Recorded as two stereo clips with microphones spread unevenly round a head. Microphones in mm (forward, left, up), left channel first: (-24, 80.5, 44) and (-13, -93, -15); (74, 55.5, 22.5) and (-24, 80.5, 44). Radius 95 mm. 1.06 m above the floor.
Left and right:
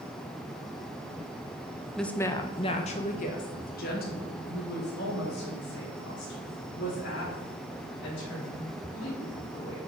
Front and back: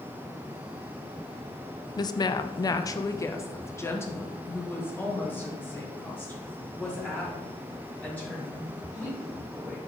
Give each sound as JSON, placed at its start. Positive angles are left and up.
{"t": 2.0, "sound": "a woman speaking", "azimuth_deg": -10, "distance_m": 0.6}